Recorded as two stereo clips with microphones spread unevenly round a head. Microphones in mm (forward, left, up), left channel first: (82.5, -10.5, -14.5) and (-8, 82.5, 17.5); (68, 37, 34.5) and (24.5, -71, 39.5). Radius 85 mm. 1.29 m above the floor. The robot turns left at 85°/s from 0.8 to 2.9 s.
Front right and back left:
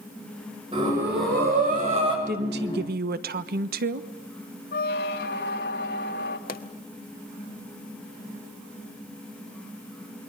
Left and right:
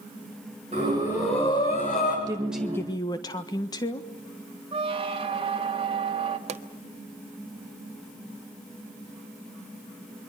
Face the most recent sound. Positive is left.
turn(degrees=-90)